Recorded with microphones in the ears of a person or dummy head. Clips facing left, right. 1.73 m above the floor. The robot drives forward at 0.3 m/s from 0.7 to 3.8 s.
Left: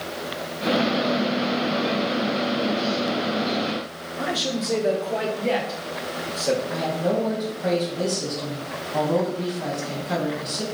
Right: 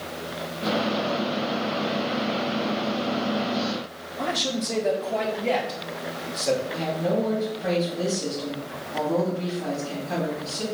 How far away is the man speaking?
About 0.7 m.